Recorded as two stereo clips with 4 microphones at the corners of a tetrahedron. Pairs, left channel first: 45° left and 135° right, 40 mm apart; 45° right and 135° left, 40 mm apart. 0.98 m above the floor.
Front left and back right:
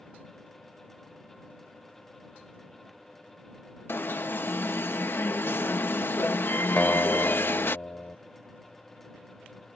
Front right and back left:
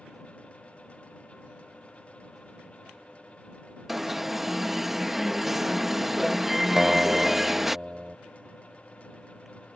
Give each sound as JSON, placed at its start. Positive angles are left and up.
{"t": 3.9, "sound": "an alarm", "azimuth_deg": 50}
{"t": 6.8, "sound": "a guitar", "azimuth_deg": 60}